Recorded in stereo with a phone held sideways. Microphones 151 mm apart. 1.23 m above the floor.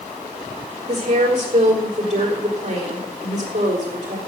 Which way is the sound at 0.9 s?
50° right (ahead or behind).